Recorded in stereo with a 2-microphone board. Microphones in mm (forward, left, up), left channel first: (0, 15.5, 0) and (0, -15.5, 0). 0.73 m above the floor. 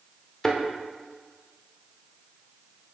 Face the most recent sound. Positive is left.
turn(degrees=20)  # may be behind; listen again after turning